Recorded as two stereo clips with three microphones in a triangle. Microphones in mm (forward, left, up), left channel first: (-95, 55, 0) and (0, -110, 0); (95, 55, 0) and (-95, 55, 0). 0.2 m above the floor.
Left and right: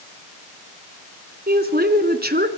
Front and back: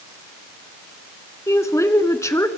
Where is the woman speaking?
70° right, 1.7 m.